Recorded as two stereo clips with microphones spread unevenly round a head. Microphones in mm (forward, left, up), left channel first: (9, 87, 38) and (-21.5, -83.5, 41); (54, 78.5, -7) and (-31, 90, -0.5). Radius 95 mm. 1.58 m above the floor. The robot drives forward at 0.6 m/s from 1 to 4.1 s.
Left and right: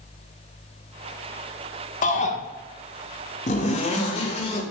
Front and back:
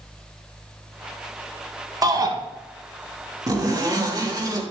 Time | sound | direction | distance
2.0 | a shout | 130° left | 1.7 m
3.5 | a zipper | 130° left | 3 m